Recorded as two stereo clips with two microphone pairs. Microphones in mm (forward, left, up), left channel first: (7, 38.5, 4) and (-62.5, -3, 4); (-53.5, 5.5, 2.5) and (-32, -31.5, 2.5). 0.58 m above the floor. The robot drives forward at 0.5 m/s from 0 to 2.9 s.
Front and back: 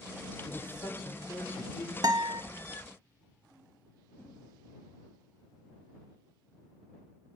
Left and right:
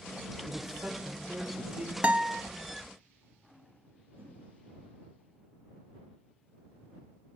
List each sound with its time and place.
0.5 s a man speaking: 10° right, 2 m; by 1.9 s 15° right, 1.4 m
2.0 s a guitar: 120° right, 0.7 m; by 2.4 s 130° right, 0.8 m
4.2 s a whoosh: 35° right, 10 m